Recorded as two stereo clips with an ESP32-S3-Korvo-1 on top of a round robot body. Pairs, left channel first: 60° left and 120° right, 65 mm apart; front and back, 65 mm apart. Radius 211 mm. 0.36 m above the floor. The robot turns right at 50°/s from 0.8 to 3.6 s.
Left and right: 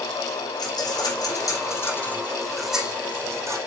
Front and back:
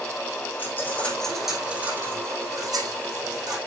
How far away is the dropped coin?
About 4.5 m.